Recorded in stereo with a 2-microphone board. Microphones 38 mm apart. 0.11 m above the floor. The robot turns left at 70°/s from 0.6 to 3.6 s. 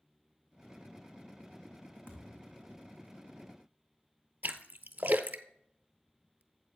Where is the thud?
100° left, 2.5 m; by 2.6 s 60° left, 2.5 m.